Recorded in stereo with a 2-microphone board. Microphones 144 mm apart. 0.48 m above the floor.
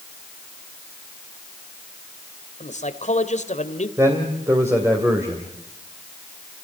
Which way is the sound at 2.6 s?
55° left (ahead or behind).